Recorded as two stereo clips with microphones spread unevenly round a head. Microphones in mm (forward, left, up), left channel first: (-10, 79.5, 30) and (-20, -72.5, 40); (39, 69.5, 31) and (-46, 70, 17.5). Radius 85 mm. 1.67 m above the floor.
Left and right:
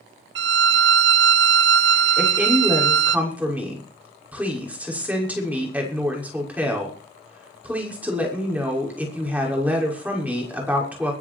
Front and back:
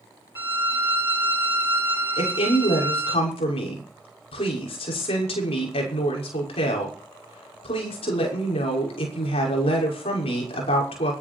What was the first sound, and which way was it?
A violin, 100° right.